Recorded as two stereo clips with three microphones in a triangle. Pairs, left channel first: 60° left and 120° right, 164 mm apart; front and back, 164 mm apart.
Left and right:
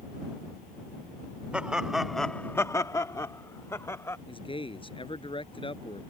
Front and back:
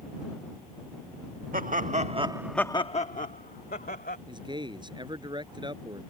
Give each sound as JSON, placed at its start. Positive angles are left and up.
{"t": 1.5, "sound": "laughter", "azimuth_deg": 160}
{"t": 4.3, "sound": "a man speaking", "azimuth_deg": 115}